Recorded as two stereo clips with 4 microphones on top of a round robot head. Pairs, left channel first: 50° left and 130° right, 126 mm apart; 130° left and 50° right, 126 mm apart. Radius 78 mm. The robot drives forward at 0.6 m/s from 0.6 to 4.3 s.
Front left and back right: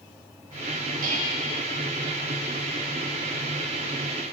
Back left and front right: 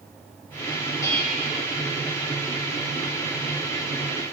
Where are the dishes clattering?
165° right, 1.4 m.